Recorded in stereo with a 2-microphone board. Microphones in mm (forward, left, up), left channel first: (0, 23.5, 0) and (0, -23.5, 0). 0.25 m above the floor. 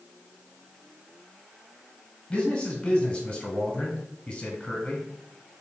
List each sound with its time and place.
2.3 s a man speaking: 25° left (ahead or behind), 1.2 m